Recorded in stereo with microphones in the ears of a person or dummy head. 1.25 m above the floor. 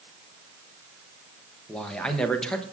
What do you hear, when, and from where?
1.7 s a man speaking: 5° left (ahead or behind), 0.8 m